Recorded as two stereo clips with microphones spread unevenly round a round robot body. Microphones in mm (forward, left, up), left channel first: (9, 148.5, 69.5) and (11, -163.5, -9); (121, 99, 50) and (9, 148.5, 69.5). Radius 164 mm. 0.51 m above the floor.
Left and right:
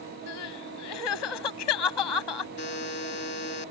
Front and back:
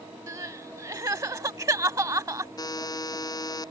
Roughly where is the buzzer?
Ahead left.